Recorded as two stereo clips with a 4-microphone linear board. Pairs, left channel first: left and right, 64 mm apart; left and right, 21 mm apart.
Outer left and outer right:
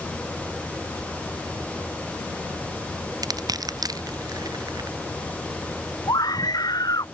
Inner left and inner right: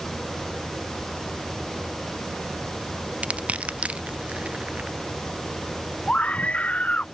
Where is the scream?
80° left.